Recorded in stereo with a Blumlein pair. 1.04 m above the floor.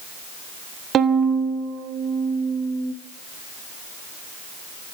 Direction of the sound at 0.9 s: 25° right.